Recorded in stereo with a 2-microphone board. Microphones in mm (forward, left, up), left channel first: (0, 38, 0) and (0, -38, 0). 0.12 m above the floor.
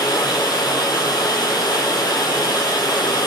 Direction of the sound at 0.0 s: 60° left (ahead or behind).